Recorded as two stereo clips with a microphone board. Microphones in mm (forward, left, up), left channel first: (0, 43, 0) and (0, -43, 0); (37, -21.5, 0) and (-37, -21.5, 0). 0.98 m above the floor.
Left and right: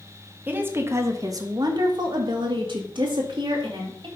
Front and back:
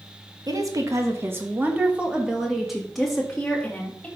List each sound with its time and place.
0.5 s a woman speaking: 155° right, 1.5 m; by 4.1 s 80° right, 2.5 m